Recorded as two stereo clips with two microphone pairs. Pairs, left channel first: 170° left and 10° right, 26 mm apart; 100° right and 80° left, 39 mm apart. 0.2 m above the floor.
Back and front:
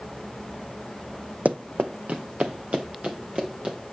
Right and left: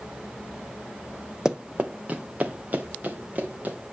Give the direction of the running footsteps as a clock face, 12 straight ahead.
12 o'clock.